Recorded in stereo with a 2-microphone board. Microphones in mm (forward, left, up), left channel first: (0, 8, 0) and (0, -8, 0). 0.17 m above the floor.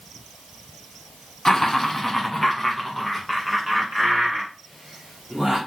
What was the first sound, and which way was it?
Laughter, 35° left (ahead or behind).